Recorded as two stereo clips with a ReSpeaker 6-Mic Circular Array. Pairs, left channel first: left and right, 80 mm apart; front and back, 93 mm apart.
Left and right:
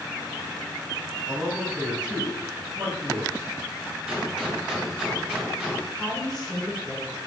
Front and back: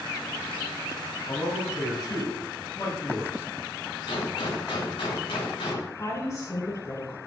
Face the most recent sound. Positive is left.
turn(degrees=10)